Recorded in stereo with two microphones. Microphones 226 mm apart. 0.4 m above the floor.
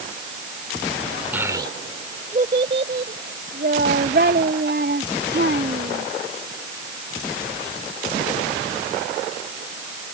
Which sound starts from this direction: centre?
A child speaking, at 1.3 s.